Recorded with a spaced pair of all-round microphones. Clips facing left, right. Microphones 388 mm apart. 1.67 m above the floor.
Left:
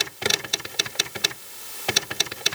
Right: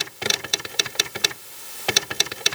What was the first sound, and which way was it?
Only background noise.